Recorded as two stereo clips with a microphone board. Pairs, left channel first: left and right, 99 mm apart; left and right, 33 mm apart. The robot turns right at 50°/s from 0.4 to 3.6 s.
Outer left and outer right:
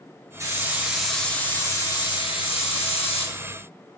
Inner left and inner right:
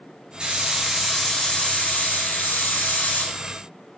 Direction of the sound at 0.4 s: 30° right.